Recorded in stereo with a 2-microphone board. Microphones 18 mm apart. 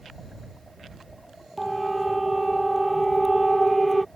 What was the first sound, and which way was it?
A siren, centre (ahead or behind).